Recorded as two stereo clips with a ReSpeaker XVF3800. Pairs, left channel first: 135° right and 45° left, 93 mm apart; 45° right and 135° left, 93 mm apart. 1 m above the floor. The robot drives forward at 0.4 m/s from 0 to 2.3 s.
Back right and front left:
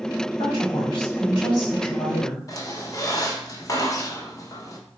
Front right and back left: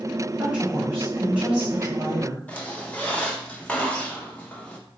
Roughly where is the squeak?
Right.